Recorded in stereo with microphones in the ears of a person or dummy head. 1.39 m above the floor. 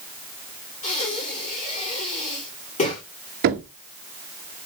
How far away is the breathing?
About 2.5 m.